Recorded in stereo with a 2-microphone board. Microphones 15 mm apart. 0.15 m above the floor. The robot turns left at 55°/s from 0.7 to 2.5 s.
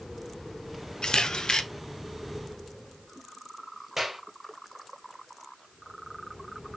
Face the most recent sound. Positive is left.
turn(degrees=-20)  # may be behind; listen again after turning